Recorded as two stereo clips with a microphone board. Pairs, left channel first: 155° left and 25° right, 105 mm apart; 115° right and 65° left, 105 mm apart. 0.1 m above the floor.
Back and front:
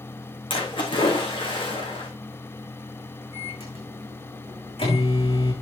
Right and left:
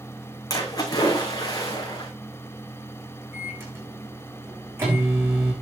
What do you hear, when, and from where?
0.5 s a splash: 170° right, 4.5 m
3.3 s a microwave: 135° left, 6 m